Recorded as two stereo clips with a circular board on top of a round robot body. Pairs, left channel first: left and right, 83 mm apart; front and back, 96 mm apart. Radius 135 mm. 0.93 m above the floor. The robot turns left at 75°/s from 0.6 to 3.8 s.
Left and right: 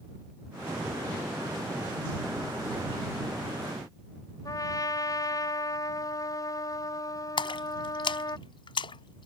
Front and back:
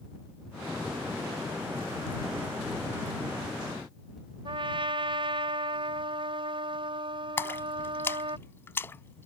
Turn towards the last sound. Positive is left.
turn(degrees=70)